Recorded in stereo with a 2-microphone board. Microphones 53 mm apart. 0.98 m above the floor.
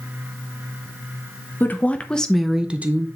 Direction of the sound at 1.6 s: 35° left (ahead or behind).